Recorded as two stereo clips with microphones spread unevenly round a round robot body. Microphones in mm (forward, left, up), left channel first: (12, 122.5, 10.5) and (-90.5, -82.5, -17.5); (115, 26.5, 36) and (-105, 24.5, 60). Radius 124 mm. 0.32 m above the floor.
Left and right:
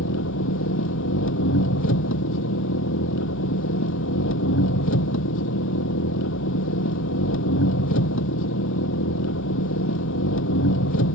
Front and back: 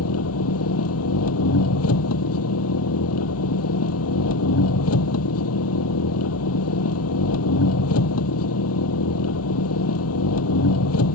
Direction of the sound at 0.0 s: 20° left.